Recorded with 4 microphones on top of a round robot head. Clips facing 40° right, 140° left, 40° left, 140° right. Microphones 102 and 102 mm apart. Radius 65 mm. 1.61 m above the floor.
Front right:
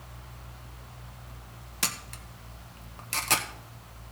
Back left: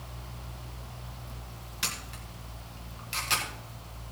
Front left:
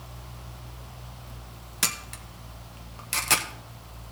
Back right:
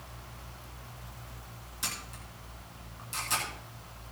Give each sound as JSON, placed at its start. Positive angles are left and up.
{"t": 1.8, "sound": "a camera shutter", "azimuth_deg": 10, "distance_m": 1.0}